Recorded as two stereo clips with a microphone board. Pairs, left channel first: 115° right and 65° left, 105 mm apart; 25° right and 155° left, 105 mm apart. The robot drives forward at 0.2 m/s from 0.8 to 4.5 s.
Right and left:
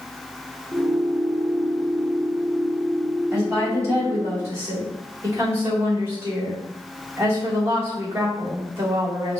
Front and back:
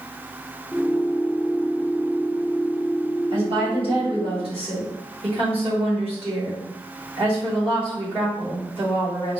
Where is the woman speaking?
130° left, 2 m; by 9.4 s 135° left, 2.5 m.